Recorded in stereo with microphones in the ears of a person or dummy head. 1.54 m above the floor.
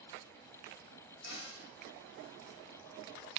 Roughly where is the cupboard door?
Left.